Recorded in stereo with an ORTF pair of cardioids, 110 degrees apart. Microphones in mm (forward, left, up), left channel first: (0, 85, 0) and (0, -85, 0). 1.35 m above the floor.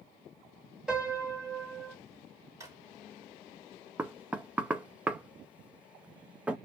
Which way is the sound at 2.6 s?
20° right.